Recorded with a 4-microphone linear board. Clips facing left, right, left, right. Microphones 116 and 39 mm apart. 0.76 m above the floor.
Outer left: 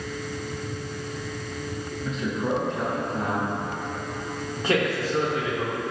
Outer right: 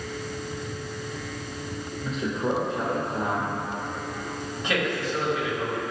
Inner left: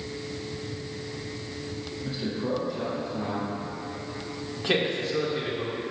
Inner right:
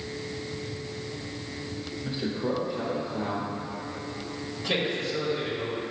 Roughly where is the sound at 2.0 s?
Centre.